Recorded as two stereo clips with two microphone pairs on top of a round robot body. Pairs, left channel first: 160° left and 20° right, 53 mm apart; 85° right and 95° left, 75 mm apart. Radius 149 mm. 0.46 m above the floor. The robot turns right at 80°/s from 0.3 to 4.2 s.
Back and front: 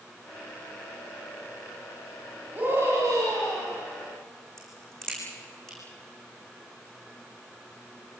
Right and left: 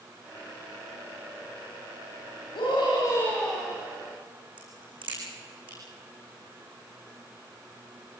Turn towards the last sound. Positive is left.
turn(degrees=80)